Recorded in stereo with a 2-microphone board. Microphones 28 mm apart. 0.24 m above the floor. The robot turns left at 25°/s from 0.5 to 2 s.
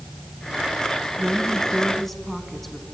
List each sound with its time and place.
1.2 s a woman speaking: 5° right (ahead or behind), 2.5 m; by 2.9 s 10° left (ahead or behind), 2.5 m